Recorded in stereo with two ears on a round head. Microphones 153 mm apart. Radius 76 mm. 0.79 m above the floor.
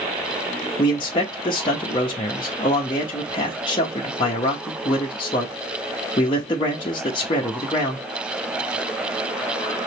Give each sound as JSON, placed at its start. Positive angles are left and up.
{"t": 0.8, "sound": "a man speaking", "side_deg": 30, "distance_m": 0.9}